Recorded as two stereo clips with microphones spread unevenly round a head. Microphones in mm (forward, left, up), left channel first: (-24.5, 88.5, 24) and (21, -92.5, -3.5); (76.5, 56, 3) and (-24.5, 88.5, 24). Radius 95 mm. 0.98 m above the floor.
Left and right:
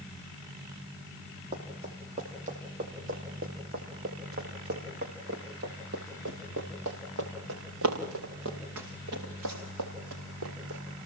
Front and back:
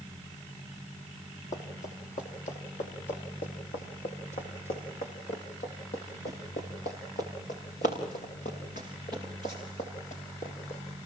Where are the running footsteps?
15° right, 5.5 m; by 10.8 s 75° right, 6 m.